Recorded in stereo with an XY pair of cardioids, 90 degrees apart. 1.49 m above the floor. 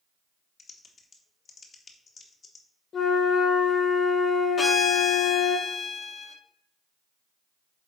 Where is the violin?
40° left, 1.1 m.